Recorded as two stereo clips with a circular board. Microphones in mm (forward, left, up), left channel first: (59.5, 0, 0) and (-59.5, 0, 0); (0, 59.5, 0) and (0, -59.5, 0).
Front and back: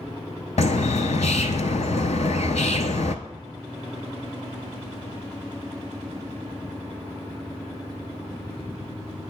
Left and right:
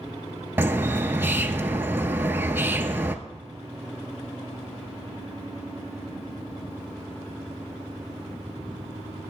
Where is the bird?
15° right, 0.5 m.